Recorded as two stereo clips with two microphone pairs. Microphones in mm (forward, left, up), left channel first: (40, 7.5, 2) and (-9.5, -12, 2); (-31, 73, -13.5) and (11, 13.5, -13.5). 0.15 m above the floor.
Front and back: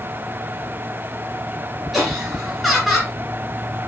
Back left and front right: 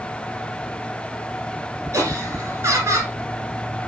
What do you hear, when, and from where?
1.9 s laughter: 70° right, 2 m